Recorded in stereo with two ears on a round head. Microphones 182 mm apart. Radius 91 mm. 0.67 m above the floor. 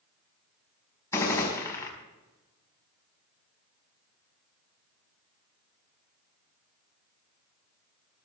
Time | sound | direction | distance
1.1 | a gunshot | 15° left (ahead or behind) | 5 m